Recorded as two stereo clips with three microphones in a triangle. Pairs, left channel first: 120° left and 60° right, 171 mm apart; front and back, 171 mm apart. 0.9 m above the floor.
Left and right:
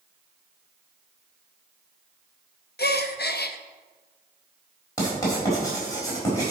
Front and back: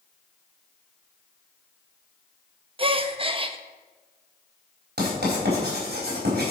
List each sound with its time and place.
2.8 s a gasp: 120° left, 0.6 m
5.0 s writing: 170° right, 4 m